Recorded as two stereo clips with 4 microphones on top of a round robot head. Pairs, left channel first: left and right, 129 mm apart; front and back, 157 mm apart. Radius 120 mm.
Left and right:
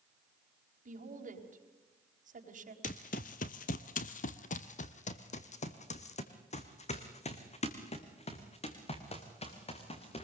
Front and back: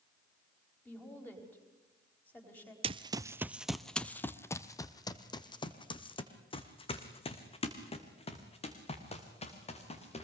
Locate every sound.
0.8 s a woman speaking: 80° right, 4 m
2.8 s running footsteps: 135° left, 0.7 m; by 10.2 s 50° left, 4 m